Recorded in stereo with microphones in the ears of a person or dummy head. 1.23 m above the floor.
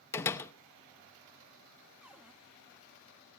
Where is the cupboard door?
10° right (ahead or behind), 1.0 m.